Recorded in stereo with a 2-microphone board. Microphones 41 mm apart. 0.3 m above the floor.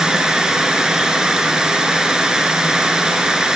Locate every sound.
0.0 s running water: 20° right (ahead or behind), 1.4 m